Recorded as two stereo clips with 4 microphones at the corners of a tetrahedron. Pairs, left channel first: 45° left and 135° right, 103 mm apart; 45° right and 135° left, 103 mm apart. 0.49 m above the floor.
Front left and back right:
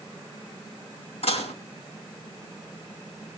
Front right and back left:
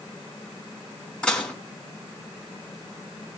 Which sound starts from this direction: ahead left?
Dishes clattering, at 1.2 s.